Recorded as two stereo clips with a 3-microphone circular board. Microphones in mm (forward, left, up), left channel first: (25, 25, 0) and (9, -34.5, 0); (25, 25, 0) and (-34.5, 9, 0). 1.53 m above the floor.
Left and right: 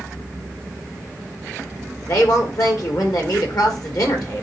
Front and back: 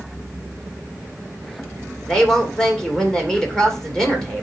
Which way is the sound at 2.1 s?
95° left.